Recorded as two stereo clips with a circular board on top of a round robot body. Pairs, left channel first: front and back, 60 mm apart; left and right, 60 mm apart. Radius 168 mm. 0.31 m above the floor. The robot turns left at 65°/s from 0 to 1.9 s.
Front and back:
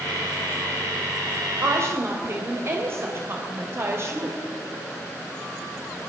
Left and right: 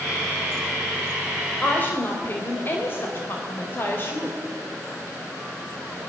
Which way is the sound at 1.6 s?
160° left.